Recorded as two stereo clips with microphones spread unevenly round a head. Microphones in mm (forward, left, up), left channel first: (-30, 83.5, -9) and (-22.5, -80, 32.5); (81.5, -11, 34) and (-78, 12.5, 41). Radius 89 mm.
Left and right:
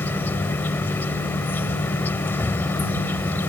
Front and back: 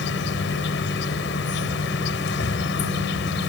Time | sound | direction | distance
0.0 | an insect | 10° left | ?